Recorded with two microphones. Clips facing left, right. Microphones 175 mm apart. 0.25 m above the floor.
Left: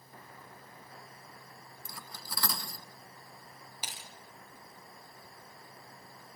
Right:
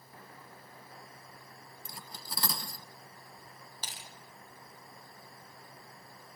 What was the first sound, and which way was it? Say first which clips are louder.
Cutlery clinking: even; 25° right (ahead or behind).